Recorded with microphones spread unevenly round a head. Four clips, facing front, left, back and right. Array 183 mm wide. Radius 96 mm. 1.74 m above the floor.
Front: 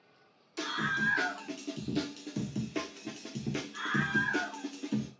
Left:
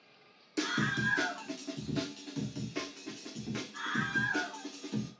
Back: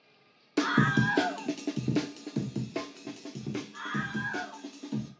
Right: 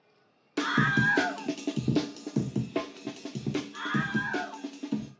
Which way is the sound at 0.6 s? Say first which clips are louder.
Right 7 dB, back 8 dB; 170° right.